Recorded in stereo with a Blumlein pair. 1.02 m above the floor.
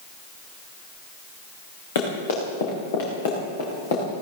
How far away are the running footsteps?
About 4.5 m.